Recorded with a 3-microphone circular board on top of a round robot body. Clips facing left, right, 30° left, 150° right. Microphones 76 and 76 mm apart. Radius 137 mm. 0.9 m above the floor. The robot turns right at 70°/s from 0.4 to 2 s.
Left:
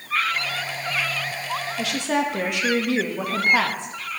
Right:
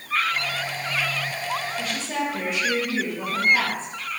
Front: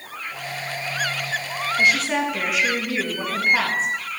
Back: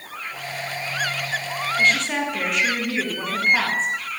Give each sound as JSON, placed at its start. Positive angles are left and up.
{"t": 1.8, "sound": "a woman speaking", "azimuth_deg": 100, "distance_m": 1.5}